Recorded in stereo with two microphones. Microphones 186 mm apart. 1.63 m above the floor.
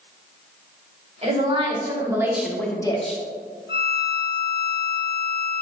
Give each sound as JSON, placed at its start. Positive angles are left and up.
{"t": 1.2, "sound": "a woman speaking", "side_deg": -40, "distance_m": 2.0}
{"t": 3.7, "sound": "a violin", "side_deg": 75, "distance_m": 0.5}